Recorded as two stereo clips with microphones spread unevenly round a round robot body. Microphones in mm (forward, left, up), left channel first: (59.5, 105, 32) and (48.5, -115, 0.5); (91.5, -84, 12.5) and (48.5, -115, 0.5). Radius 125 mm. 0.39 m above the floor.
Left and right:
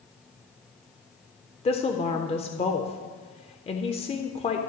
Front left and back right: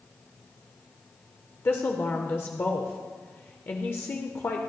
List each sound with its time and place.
1.6 s a woman speaking: 35° left, 0.8 m